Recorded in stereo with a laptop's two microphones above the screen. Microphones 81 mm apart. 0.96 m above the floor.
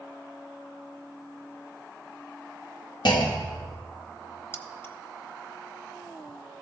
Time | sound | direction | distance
3.0 | a clunk | 60° left (ahead or behind) | 1.1 m
4.5 | keys jangling | 30° left (ahead or behind) | 0.8 m